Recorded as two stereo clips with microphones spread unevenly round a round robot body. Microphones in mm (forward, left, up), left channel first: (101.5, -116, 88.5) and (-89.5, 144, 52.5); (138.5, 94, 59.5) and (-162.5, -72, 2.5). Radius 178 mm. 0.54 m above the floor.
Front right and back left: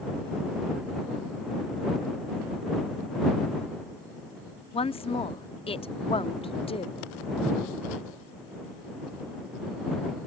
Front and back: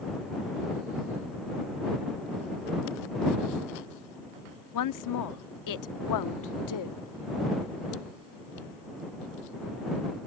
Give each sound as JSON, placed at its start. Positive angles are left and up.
{"t": 4.7, "sound": "a woman speaking", "azimuth_deg": 20}